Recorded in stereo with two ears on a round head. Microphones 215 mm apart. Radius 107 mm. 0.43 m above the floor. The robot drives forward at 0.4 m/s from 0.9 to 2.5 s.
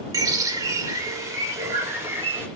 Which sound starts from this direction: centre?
A bird, at 0.1 s.